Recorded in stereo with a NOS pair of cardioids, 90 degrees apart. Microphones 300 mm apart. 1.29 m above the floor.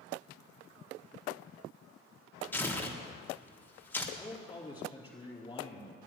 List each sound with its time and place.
2.5 s tearing paper: 5° left, 1.4 m
4.2 s a man speaking: 15° left, 4 m